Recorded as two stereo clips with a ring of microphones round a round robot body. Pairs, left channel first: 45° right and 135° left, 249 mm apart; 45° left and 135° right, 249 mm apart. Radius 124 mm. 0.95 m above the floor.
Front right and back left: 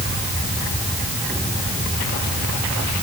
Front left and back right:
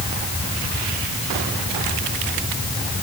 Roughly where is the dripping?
I don't hear dripping.